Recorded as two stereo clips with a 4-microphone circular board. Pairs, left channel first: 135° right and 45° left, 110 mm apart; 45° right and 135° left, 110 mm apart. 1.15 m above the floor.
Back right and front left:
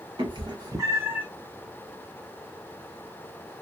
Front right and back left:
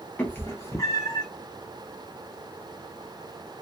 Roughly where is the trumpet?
I don't hear a trumpet.